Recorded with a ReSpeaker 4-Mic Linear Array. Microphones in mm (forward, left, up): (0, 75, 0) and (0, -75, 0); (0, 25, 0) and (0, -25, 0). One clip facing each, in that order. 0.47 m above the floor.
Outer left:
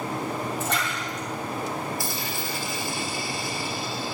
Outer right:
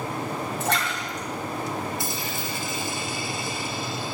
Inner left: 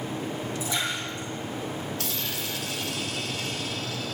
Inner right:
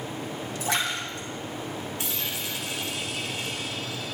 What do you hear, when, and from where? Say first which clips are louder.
0.6 s a splash: outer right 1 dB, inner right 4 dB; 75° right (ahead or behind), 3 m
2.0 s a dropped coin: even, even; 20° right (ahead or behind), 1.8 m